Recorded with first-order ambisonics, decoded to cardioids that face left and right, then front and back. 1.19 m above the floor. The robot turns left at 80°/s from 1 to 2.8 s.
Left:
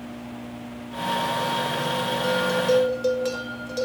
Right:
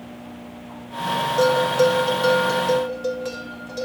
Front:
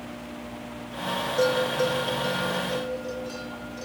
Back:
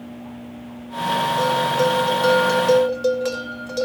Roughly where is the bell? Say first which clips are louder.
Right 8 dB, back 1 dB; right.